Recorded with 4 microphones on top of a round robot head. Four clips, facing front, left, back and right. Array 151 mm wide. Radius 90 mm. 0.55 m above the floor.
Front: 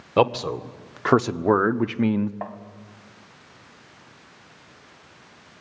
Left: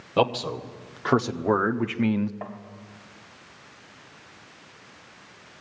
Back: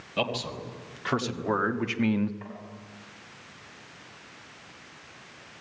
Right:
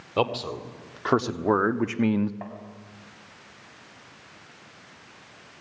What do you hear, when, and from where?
0.2 s a man speaking: 5° left, 2 m; by 2.3 s 60° right, 1.1 m
2.4 s tapping: 5° left, 2.5 m